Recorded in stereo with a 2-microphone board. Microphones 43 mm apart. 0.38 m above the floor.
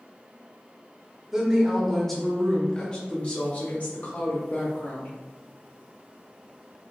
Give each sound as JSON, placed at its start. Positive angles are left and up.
{"t": 1.3, "sound": "a woman speaking", "side_deg": -10, "distance_m": 1.3}